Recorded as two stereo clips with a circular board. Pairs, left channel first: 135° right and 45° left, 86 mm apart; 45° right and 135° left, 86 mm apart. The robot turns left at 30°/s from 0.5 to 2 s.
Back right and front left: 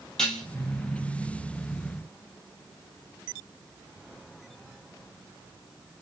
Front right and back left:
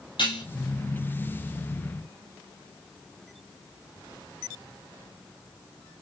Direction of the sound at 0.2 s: 55° right.